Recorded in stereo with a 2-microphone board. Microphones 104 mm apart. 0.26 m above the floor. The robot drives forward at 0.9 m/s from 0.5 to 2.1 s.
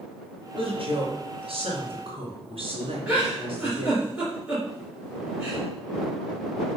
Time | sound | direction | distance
0.6 | a woman speaking | 55° right (ahead or behind) | 3 m
3.1 | a giggle | 10° right (ahead or behind) | 3.5 m